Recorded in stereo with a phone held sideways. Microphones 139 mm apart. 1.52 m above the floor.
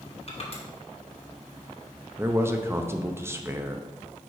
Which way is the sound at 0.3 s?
45° left (ahead or behind).